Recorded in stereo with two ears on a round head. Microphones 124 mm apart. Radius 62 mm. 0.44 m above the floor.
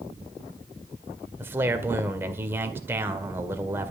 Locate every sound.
1.4 s a man speaking: 15° right (ahead or behind), 1.7 m